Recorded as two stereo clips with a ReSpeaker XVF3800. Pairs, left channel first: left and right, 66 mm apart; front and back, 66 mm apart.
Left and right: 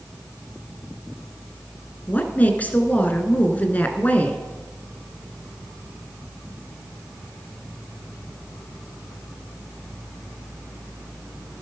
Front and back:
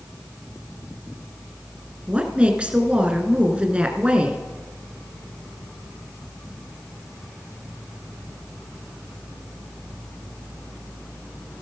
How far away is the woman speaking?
About 1.2 m.